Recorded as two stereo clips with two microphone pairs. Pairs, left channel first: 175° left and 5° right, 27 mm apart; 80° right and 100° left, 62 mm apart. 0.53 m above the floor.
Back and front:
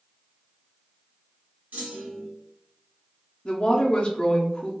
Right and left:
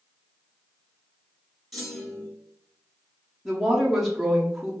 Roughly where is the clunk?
Ahead.